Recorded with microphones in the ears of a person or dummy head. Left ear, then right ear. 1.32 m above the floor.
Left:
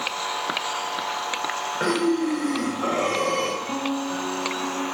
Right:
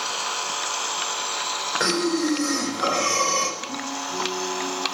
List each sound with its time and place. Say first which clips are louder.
1.8 s breathing: left 1 dB; 85° right, 4.5 m
3.6 s a guitar: left 2 dB; 50° left (ahead or behind), 6 m